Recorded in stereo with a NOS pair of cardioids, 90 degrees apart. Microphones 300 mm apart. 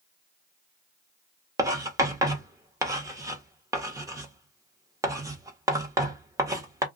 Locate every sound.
1.6 s writing: 10° right, 0.9 m